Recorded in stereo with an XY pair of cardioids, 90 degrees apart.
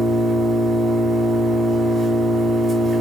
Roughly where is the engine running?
Ahead right.